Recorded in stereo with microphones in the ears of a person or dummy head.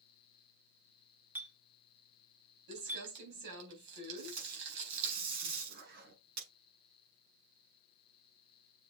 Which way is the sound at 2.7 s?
70° right (ahead or behind).